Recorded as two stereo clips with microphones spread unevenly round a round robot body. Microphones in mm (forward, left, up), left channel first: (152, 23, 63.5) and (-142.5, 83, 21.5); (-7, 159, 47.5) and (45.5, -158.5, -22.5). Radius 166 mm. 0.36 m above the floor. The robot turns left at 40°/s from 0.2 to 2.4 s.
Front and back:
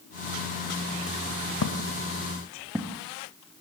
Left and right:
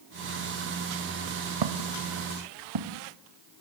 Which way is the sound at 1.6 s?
60° right.